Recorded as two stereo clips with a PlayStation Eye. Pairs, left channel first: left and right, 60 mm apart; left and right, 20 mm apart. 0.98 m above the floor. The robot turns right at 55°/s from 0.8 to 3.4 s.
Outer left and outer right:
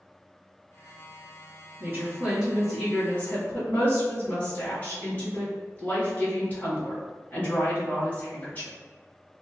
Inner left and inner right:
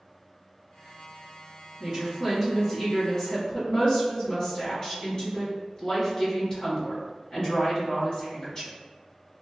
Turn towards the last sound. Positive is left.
turn(degrees=40)